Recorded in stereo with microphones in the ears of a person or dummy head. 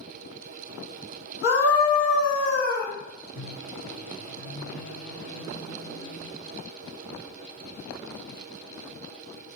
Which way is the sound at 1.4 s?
70° left (ahead or behind).